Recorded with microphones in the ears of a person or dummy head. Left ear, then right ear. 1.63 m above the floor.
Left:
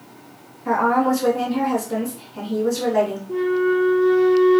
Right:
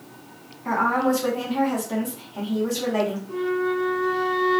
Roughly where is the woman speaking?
Centre.